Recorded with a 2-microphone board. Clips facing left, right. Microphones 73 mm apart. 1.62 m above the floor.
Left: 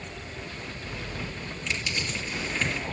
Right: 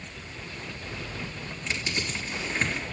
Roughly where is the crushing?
Right.